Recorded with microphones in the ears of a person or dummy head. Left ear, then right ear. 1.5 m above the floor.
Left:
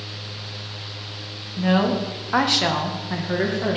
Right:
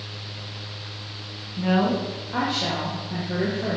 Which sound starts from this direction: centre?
A woman speaking, at 1.6 s.